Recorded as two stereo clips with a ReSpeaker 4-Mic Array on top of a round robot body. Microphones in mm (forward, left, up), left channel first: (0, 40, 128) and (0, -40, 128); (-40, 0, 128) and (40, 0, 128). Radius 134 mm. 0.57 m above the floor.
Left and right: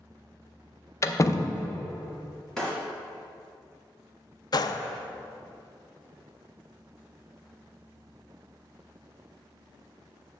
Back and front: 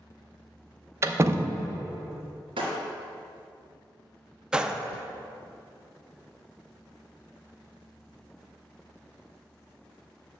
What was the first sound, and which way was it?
A door slam, 45° left.